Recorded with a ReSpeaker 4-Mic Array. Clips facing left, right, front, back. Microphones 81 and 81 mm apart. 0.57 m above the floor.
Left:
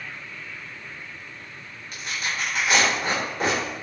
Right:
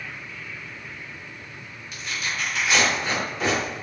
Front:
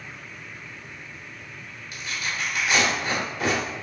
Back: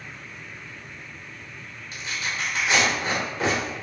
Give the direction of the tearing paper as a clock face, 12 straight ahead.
8 o'clock.